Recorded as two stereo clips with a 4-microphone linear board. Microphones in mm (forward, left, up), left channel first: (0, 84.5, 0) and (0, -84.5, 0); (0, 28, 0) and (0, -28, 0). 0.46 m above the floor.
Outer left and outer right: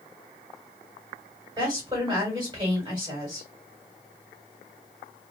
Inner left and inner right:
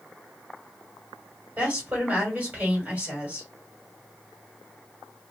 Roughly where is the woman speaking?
Right.